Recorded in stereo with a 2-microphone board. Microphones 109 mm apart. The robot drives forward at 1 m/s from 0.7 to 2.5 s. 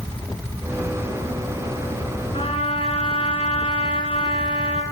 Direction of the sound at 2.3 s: 65° left (ahead or behind).